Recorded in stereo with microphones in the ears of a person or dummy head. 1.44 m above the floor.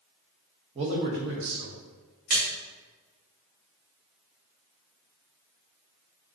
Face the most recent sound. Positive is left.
turn(degrees=-50)  # may be behind; listen again after turning